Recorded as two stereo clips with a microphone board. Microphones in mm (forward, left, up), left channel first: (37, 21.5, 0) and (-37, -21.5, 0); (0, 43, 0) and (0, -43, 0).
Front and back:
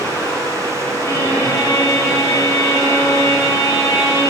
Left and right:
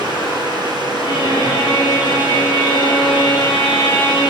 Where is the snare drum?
No snare drum in this recording.